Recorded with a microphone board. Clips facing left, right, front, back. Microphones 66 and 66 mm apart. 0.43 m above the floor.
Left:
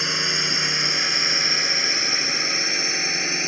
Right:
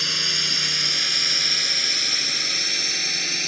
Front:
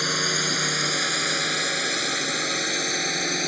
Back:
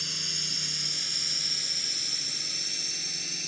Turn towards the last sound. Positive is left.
turn(degrees=25)